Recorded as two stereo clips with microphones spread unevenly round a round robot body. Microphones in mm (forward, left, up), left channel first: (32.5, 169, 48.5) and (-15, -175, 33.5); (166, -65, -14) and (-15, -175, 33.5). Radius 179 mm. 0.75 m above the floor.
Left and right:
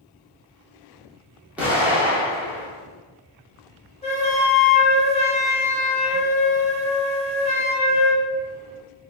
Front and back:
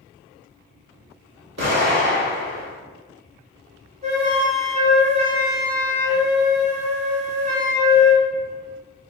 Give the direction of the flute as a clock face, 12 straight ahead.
7 o'clock.